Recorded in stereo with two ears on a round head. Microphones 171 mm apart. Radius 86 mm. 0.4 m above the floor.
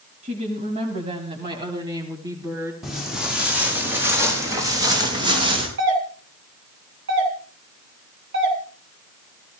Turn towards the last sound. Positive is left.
turn(degrees=-70)  # may be behind; listen again after turning